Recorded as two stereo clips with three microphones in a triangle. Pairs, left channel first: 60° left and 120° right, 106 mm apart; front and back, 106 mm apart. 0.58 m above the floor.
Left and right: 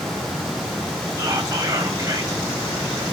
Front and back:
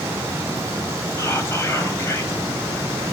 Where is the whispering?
60° right, 2.5 m.